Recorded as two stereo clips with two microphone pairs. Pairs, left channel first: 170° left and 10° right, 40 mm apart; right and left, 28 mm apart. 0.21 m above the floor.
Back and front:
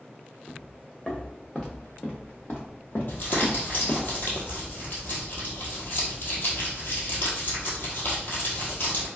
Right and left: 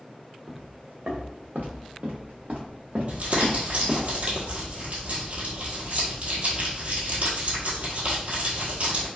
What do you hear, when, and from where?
0.5 s footsteps: 85° left, 1.6 m; by 4.1 s 160° left, 1.5 m
3.1 s crumpling: 130° left, 1.6 m